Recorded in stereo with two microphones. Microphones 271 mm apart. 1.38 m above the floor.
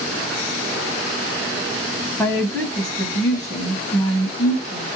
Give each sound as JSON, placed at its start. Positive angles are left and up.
{"t": 2.2, "sound": "a woman speaking", "side_deg": 5, "distance_m": 1.0}